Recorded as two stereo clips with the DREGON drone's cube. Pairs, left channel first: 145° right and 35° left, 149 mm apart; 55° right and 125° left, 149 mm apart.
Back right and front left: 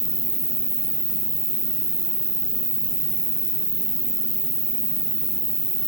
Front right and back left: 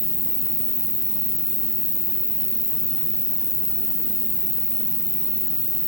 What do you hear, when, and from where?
0.0 s an insect: 15° left, 1.4 m